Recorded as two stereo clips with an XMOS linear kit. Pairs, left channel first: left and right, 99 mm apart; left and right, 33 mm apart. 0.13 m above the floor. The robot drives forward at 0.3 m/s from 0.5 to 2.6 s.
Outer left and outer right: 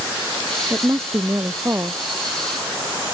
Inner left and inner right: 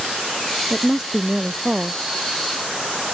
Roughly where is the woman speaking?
Right.